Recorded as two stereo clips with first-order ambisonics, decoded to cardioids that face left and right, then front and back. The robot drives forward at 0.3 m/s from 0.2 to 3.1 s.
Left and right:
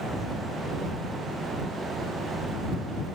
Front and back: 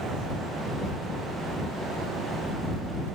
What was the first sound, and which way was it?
Only background noise.